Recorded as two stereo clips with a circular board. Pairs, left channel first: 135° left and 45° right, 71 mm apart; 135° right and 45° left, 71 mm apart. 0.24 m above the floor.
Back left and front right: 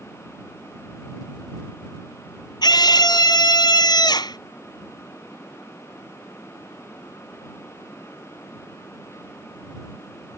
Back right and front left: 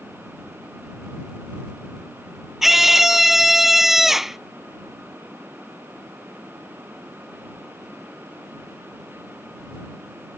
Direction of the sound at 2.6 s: 130° left.